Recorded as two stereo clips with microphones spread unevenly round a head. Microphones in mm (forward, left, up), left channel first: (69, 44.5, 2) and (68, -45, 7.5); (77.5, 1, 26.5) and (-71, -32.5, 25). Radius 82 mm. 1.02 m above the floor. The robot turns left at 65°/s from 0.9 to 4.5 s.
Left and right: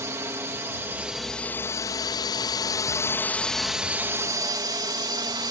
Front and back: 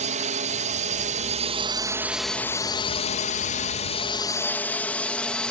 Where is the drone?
150° right; by 5.5 s 70° right.